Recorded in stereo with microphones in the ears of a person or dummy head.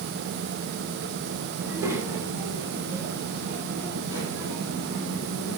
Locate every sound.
1.6 s a child speaking: 15° right (ahead or behind), 2 m; by 5.6 s 20° right (ahead or behind), 5.5 m